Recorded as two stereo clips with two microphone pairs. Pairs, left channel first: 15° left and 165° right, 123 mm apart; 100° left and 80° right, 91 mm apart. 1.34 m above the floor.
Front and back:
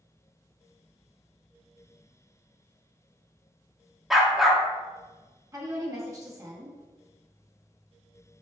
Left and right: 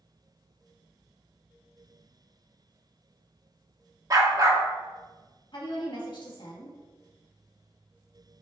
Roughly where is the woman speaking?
Behind left.